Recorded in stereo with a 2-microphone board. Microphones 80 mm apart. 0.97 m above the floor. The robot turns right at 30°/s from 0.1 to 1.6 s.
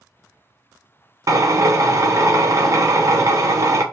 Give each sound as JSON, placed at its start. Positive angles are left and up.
{"t": 1.3, "sound": "a drill", "side_deg": -50, "distance_m": 0.5}